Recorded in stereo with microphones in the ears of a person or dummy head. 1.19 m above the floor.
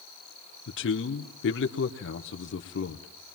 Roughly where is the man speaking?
Left.